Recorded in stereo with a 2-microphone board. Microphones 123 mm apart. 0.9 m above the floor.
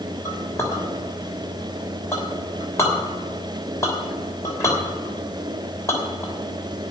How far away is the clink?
About 3 m.